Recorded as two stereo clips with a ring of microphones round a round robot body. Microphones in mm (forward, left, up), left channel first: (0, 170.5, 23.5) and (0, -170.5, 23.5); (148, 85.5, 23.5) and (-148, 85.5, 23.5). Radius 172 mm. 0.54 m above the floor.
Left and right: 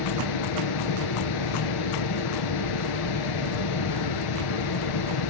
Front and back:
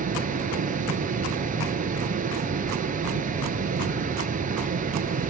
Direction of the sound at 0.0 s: 115° left.